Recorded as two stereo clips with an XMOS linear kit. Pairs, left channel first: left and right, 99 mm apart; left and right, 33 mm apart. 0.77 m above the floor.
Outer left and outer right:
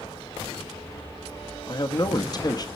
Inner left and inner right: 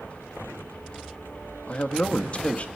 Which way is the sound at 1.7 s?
40° left (ahead or behind).